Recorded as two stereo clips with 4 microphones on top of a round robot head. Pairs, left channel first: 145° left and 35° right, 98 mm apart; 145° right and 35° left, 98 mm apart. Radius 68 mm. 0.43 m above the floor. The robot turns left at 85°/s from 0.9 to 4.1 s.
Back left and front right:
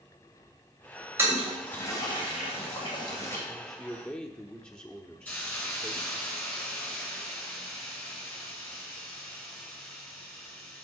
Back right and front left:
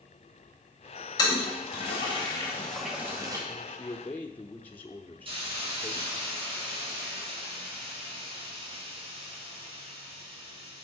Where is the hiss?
70° left, 2.5 m.